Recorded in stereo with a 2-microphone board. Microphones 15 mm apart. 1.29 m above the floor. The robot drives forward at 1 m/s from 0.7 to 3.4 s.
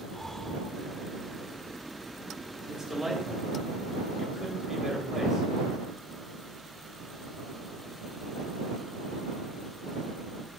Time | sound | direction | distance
0.1 | breathing | 20° left (ahead or behind) | 1.6 m
2.7 | a man speaking | 30° right (ahead or behind) | 4 m